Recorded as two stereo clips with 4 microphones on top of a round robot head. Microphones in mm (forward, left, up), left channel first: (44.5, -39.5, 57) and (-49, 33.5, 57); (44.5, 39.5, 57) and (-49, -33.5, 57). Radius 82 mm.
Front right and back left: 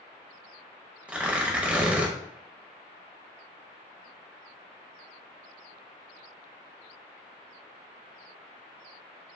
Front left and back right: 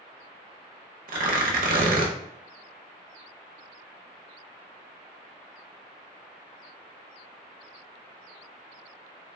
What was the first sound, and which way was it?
Tearing paper, 140° right.